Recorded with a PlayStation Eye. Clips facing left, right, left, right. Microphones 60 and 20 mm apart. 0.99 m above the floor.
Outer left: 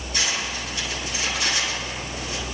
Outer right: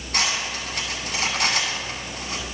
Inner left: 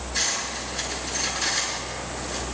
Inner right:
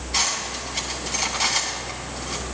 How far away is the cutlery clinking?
About 5 m.